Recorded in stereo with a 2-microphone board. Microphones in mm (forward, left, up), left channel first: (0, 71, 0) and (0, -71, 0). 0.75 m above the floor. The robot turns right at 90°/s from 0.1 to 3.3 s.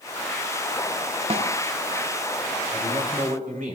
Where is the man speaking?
125° right, 5.5 m; by 3.8 s 75° right, 5.5 m.